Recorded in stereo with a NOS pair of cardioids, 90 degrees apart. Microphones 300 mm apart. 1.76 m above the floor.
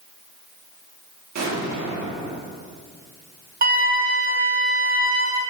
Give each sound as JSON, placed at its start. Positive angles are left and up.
{"t": 1.4, "sound": "an explosion", "azimuth_deg": -65, "distance_m": 1.8}
{"t": 3.6, "sound": "a flute", "azimuth_deg": -30, "distance_m": 1.5}